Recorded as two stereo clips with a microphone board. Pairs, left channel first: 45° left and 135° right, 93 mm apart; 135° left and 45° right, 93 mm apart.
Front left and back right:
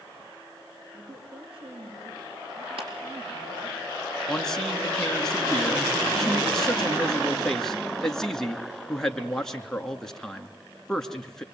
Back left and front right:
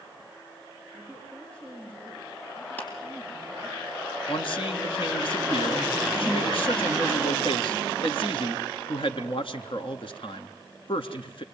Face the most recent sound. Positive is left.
turn(degrees=130)